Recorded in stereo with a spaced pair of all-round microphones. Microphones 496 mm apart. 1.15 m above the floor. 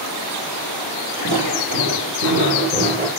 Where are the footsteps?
45° right (ahead or behind), 2.5 m; by 3.1 s 20° right (ahead or behind), 2.0 m.